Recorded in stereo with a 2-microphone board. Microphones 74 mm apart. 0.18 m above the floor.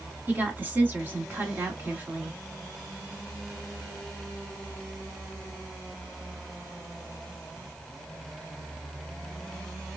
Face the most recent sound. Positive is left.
turn(degrees=-25)  # may be behind; listen again after turning